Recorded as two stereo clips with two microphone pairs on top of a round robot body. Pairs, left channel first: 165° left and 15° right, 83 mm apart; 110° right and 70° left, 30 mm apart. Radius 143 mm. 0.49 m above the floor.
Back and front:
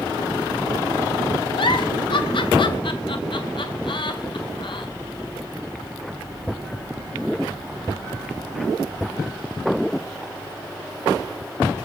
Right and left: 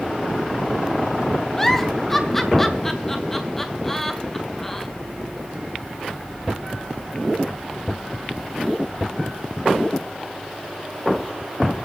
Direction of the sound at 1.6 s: 165° left.